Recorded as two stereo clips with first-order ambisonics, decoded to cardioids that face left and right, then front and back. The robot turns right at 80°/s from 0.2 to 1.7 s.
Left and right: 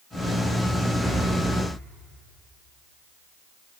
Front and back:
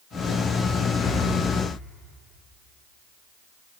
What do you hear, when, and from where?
1.0 s breathing: 5° right, 0.9 m; by 1.3 s 20° left, 0.9 m